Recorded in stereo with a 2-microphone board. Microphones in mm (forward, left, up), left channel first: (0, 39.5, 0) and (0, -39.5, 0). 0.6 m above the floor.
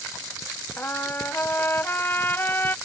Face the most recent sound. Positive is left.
turn(degrees=25)  # may be behind; listen again after turning